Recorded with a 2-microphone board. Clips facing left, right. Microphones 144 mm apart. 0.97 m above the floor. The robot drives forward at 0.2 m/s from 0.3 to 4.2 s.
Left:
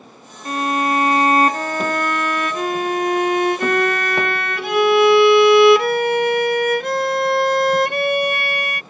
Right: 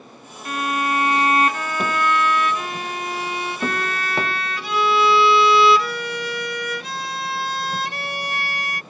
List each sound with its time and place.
0.5 s a violin: 35° left (ahead or behind); by 8.8 s 60° left (ahead or behind)